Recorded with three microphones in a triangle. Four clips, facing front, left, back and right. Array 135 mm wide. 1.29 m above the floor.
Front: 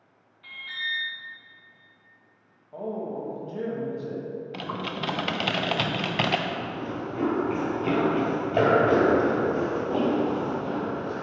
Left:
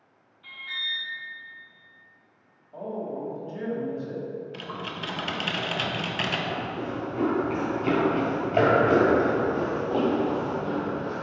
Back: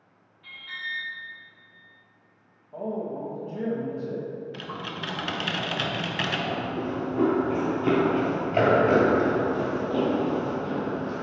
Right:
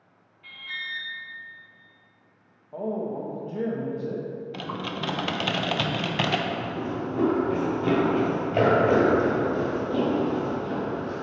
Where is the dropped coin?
I don't hear a dropped coin.